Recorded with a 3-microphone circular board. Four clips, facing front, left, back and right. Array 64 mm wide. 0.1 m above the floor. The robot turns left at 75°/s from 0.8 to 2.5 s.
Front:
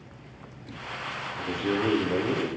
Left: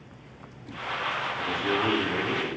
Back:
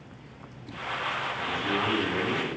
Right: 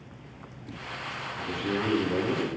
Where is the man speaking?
45° left, 5 m; by 2.5 s 40° right, 5 m.